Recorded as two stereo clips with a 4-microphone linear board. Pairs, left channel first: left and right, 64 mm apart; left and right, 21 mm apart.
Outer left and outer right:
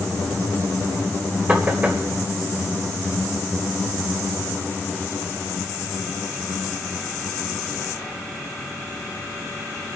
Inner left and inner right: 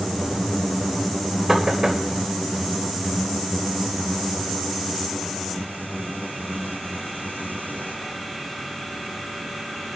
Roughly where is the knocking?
Right.